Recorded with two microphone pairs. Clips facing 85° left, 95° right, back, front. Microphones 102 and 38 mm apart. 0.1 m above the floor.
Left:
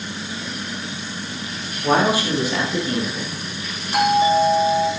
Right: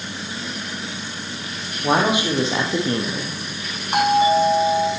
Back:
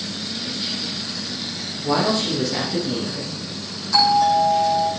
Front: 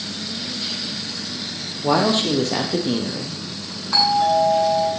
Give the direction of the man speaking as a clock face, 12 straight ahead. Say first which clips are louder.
Left 1 dB, front 2 dB; 1 o'clock.